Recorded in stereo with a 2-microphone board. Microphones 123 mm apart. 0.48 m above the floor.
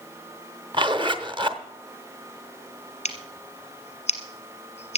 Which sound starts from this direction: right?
A zipper, at 0.7 s.